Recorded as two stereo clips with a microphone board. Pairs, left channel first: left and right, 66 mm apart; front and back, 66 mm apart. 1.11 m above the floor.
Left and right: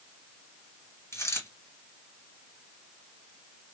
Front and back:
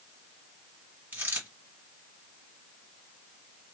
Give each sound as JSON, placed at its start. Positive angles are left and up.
{"t": 1.1, "sound": "a dropped coin", "azimuth_deg": 120, "distance_m": 1.7}